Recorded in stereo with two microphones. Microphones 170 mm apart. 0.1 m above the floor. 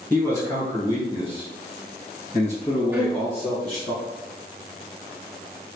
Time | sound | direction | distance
0.1 | a man speaking | 15° left (ahead or behind) | 1.4 m
2.9 | a violin | 10° right (ahead or behind) | 0.5 m